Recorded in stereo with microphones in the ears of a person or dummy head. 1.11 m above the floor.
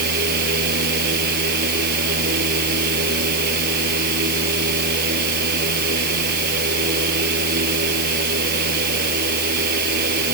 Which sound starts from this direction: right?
A fan, at 0.0 s.